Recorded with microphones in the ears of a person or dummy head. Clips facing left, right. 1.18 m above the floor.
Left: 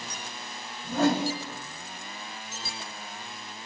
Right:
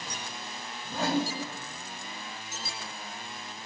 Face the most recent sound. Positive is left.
turn(degrees=60)  # may be behind; listen again after turning